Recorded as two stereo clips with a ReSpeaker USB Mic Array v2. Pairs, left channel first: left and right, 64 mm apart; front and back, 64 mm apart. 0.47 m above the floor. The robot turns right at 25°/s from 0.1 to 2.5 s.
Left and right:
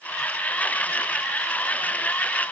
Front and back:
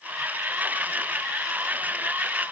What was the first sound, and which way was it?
Only background noise.